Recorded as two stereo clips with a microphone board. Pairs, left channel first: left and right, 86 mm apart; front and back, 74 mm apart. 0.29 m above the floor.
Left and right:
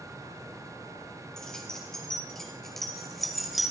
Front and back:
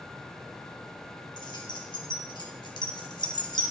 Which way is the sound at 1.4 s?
10° left.